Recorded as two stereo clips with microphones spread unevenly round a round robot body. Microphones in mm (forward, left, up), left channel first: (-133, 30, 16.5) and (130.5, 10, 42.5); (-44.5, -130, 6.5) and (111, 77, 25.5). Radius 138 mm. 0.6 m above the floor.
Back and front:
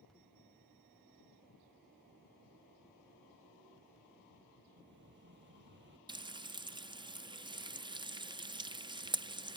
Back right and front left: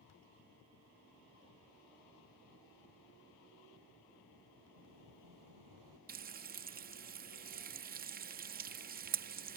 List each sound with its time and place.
4.8 s an explosion: 45° left
6.1 s frying: 60° left